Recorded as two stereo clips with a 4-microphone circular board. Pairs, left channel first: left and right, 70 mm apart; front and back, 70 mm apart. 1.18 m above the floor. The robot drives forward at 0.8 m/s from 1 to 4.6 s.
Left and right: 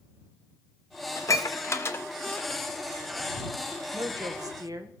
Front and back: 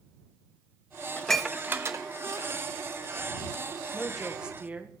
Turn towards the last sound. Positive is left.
turn(degrees=-110)